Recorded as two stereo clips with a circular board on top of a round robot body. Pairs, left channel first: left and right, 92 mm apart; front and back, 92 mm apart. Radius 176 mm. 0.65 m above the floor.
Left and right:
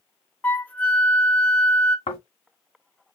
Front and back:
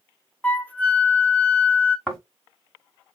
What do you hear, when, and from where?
0.4 s a flute: 45° left, 0.9 m
2.1 s snoring: 85° left, 0.7 m